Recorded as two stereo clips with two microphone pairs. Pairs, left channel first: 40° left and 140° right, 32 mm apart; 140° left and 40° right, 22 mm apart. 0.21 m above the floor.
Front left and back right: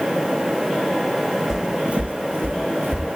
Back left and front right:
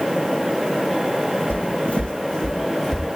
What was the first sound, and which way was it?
Footsteps, 150° left.